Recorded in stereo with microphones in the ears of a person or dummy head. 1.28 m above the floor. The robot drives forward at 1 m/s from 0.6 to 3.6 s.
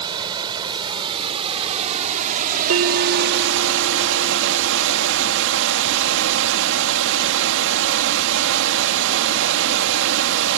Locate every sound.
0.0 s running water: 25° right (ahead or behind); by 10.6 s 70° right (ahead or behind)
2.7 s a bell: 80° right; by 5.5 s 45° right (ahead or behind)